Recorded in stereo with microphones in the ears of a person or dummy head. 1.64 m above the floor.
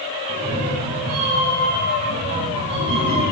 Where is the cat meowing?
30° right (ahead or behind), 3.5 m; by 3.2 s 60° right (ahead or behind), 4 m.